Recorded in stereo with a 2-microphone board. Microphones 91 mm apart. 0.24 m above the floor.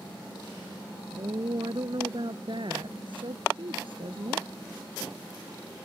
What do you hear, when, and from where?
1.1 s a woman speaking: 55° right (ahead or behind); by 4.5 s 70° right (ahead or behind)